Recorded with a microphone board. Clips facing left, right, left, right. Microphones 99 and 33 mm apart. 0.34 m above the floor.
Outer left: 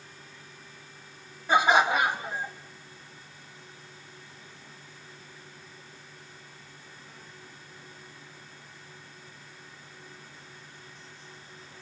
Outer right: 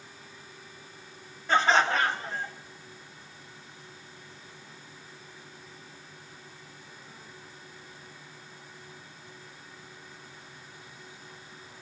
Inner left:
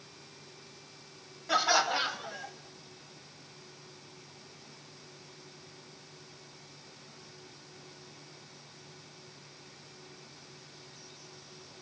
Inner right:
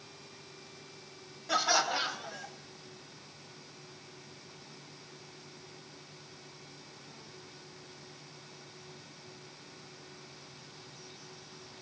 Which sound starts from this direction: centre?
Laughter, at 1.5 s.